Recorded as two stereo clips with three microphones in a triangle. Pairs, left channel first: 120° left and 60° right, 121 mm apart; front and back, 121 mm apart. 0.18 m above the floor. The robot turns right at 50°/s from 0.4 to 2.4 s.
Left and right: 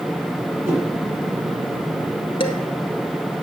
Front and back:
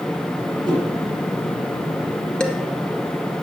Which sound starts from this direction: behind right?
A whoosh, at 0.7 s.